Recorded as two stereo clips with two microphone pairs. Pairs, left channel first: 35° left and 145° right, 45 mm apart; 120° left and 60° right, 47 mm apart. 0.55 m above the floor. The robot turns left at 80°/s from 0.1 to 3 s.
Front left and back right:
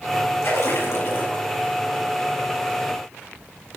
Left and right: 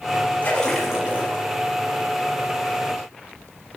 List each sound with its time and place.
0.4 s a splash: 60° left, 6 m; by 1.6 s 35° right, 6 m